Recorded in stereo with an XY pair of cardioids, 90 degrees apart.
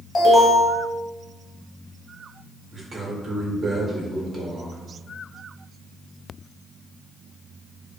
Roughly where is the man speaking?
Ahead right.